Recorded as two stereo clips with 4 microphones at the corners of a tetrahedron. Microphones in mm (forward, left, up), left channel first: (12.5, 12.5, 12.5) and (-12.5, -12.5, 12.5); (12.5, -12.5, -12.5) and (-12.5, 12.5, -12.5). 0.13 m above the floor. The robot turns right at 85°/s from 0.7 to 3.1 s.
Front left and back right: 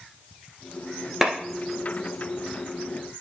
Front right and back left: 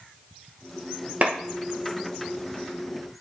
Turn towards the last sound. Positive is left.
turn(degrees=-45)